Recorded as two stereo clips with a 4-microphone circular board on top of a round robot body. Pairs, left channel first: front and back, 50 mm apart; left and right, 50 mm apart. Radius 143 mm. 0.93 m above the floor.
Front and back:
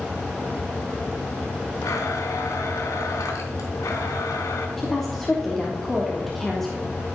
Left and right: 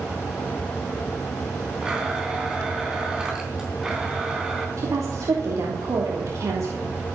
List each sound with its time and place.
1.8 s a blender: 10° right, 3.5 m
4.8 s a woman speaking: 85° right, 3.5 m